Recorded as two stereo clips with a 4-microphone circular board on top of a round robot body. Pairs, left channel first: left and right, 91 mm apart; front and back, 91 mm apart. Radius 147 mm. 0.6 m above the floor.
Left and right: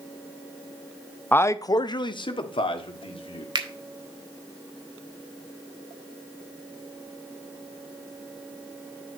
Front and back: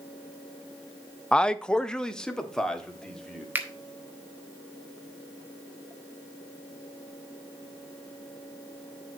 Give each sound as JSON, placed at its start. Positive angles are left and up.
{"t": 1.3, "sound": "a man speaking", "azimuth_deg": 65, "distance_m": 0.7}
{"t": 3.5, "sound": "a finger snap", "azimuth_deg": -110, "distance_m": 1.8}